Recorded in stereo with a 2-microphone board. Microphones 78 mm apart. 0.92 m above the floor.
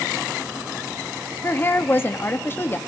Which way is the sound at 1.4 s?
30° left (ahead or behind).